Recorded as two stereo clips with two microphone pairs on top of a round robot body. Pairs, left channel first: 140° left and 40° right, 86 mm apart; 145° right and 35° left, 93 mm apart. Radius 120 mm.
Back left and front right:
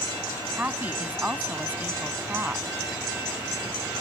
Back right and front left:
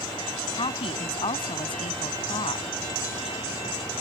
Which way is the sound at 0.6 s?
115° right.